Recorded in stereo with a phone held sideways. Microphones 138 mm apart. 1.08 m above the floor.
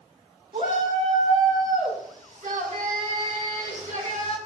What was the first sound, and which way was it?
A shout, 85° right.